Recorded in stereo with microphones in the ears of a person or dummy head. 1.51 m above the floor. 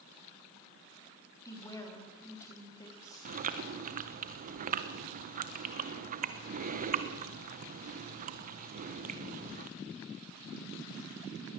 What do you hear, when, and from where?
1.4 s a woman speaking: 20° left (ahead or behind), 3.5 m
3.2 s chewing: 40° right (ahead or behind), 1.2 m